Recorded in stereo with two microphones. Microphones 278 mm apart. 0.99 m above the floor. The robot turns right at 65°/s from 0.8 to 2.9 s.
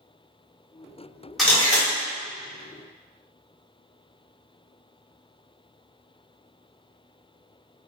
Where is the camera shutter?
Straight ahead, 0.8 m; by 1.9 s 30° left, 0.8 m.